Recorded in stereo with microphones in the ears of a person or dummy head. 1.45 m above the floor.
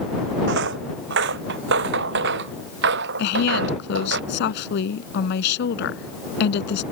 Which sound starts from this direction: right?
Footsteps, at 0.5 s.